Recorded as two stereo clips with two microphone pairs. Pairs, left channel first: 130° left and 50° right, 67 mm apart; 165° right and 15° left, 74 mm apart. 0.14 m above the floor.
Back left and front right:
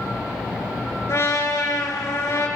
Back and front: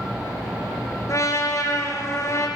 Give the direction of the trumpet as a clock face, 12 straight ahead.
7 o'clock.